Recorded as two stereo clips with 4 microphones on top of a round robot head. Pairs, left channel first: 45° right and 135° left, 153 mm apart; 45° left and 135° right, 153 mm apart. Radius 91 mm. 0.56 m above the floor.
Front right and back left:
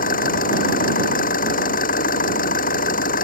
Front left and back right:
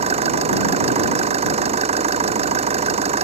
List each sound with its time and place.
0.0 s an engine running: 80° right